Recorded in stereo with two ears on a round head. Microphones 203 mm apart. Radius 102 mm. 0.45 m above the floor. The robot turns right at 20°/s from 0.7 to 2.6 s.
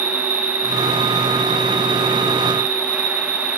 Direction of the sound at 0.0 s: 115° right.